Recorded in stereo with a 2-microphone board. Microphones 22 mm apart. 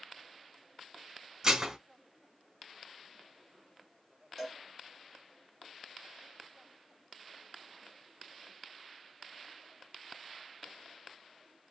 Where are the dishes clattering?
20° right (ahead or behind), 0.7 m.